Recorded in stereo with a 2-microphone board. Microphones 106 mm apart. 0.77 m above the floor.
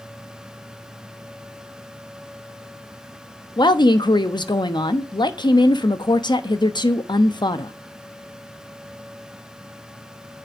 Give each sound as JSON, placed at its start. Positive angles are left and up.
{"t": 3.6, "sound": "a woman speaking", "side_deg": 45, "distance_m": 0.9}